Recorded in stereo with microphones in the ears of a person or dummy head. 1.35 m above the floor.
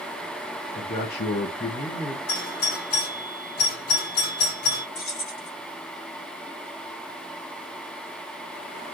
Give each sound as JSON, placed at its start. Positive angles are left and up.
{"t": 0.8, "sound": "a man speaking", "side_deg": 35, "distance_m": 0.8}
{"t": 2.3, "sound": "a doorbell", "side_deg": 40, "distance_m": 1.3}
{"t": 5.0, "sound": "keys jangling", "side_deg": 35, "distance_m": 1.4}